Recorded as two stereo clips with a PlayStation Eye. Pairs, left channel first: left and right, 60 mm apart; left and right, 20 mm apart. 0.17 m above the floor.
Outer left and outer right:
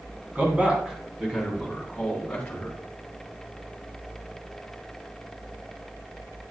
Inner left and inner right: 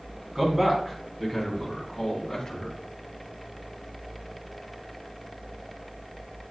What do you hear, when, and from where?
0.3 s a man speaking: 30° right (ahead or behind), 1.7 m; by 2.8 s 25° left (ahead or behind), 1.7 m